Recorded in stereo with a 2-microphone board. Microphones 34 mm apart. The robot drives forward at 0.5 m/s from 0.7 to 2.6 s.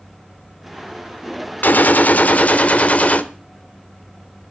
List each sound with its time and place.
1.6 s a gunshot: 65° left (ahead or behind), 1.0 m; by 3.2 s 45° left (ahead or behind), 1.2 m